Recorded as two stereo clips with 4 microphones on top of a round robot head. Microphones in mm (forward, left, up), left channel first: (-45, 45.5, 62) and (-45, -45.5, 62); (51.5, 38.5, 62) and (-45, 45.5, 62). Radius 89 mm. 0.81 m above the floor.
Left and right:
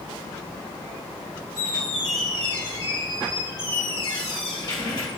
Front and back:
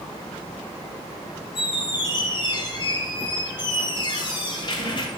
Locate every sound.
1.6 s a squeak: 35° left, 1.4 m